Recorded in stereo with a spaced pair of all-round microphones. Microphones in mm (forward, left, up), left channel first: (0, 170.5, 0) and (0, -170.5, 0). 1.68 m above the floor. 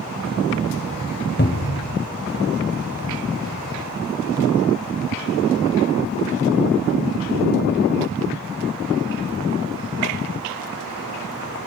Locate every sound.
1.4 s a cupboard door: 30° left (ahead or behind), 0.9 m